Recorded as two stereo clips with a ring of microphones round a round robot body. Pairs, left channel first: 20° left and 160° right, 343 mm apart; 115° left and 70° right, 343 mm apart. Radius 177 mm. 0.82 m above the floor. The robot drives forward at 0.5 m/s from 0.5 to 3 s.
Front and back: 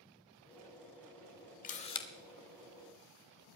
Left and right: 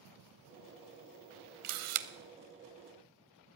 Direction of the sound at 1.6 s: 40° right.